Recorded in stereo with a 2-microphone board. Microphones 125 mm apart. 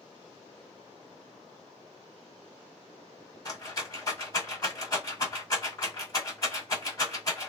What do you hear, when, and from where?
3.5 s a rattle: 30° left (ahead or behind), 1.8 m